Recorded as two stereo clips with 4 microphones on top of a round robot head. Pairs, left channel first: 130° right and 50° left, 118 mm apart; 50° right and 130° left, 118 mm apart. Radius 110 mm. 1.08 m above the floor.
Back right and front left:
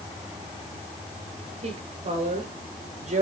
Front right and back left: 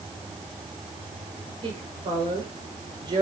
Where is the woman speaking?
85° left, 5.5 m; by 3.2 s 75° left, 5.5 m.